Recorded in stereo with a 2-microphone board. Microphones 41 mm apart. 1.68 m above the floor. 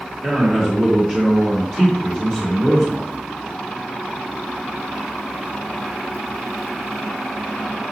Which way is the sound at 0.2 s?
45° right (ahead or behind).